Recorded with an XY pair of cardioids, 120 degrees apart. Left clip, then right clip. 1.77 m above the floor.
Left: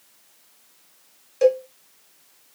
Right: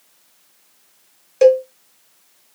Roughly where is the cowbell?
Ahead right.